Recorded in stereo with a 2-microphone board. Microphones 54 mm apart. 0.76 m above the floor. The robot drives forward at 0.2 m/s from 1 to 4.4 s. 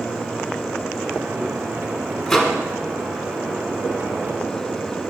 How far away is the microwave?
About 1.3 m.